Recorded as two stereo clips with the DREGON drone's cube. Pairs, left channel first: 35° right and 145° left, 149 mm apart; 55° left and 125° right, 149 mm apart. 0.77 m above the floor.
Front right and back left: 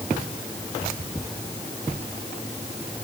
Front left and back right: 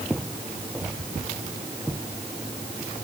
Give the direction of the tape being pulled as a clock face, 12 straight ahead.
I don't hear tape being pulled.